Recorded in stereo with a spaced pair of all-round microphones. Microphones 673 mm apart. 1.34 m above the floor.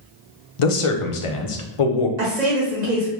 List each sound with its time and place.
0.6 s a man speaking: 50° left (ahead or behind), 0.6 m
2.2 s a woman speaking: 85° right, 1.4 m